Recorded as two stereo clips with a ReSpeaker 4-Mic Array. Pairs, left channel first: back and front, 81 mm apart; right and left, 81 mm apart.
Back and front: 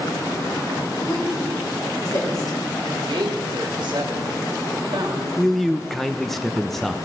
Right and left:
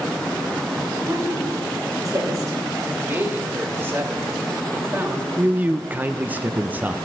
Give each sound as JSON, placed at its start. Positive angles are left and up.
{"t": 1.1, "sound": "a woman speaking", "azimuth_deg": 140, "distance_m": 3.5}
{"t": 2.9, "sound": "a man speaking", "azimuth_deg": 30, "distance_m": 1.8}
{"t": 5.4, "sound": "a man speaking", "azimuth_deg": 100, "distance_m": 0.6}